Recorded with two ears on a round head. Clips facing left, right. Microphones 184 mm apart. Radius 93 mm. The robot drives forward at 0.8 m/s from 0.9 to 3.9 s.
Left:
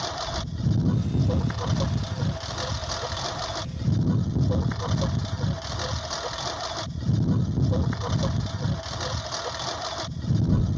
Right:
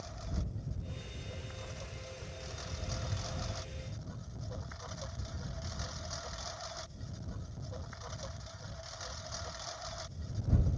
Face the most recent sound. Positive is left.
turn(degrees=80)